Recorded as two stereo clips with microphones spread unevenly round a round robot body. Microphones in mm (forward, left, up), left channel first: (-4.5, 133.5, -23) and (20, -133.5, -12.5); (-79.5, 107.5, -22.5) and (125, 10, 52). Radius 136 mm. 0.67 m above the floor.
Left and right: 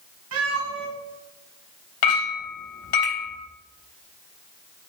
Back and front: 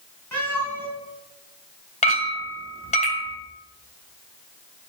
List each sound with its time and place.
0.3 s a cat meowing: 125° right, 3 m
2.0 s a clink: 95° left, 3 m